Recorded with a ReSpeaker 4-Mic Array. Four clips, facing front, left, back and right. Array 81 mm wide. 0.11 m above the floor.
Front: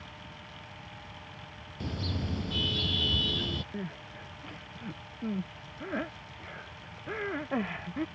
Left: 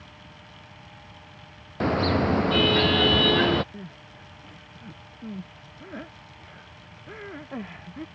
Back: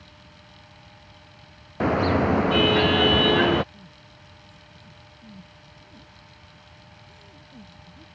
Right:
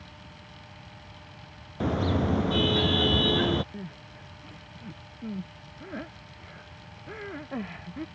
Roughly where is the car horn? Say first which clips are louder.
Left 4 dB, back 16 dB; behind.